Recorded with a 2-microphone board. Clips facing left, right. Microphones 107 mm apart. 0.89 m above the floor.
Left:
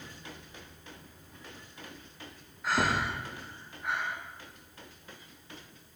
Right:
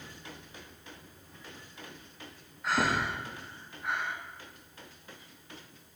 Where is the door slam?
I don't hear a door slam.